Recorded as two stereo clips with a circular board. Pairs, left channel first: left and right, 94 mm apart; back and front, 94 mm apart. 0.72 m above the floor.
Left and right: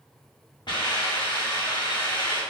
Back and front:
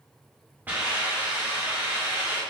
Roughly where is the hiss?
Ahead left.